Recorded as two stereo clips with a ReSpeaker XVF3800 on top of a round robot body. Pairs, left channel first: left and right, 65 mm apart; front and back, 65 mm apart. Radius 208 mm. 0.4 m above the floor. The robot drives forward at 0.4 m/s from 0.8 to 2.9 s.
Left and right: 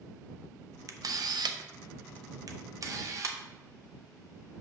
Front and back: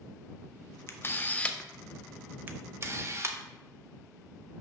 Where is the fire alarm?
No fire alarm in this recording.